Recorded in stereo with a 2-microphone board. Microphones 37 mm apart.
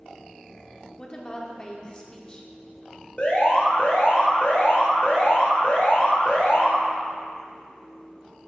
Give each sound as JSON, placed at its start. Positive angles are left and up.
{"t": 1.0, "sound": "a woman speaking", "side_deg": 25, "distance_m": 0.9}
{"t": 3.2, "sound": "an alarm", "side_deg": 40, "distance_m": 2.5}